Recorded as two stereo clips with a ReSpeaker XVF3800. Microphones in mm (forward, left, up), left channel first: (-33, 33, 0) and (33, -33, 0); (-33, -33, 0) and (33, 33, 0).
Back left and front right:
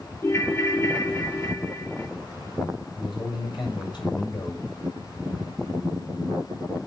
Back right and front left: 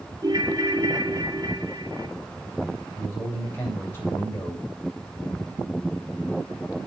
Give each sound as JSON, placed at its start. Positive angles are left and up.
{"t": 0.2, "sound": "a ringtone", "azimuth_deg": 75, "distance_m": 2.0}
{"t": 3.0, "sound": "a man speaking", "azimuth_deg": 165, "distance_m": 7.0}